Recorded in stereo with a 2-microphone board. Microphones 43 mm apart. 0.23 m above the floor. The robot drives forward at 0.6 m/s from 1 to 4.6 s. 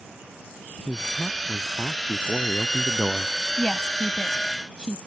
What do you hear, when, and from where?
0.9 s a man speaking: 25° left (ahead or behind)
3.6 s a woman speaking: 20° left (ahead or behind)